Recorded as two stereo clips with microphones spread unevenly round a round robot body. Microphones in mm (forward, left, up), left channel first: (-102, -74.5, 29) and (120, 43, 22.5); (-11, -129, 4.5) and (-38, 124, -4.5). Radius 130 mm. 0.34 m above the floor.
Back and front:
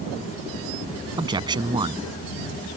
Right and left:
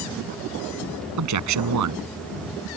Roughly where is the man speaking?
Left.